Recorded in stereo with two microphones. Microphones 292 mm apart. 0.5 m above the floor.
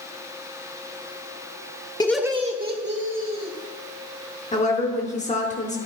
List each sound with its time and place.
2.0 s laughter: 15° left (ahead or behind), 0.7 m; by 3.5 s 45° right (ahead or behind), 2 m
4.5 s a woman speaking: 25° left (ahead or behind), 1.0 m